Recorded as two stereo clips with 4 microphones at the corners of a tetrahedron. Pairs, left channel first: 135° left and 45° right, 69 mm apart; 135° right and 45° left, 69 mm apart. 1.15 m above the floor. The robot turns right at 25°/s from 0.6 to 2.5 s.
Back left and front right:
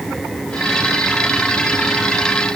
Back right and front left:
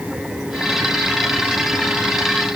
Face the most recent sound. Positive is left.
No sound to turn to.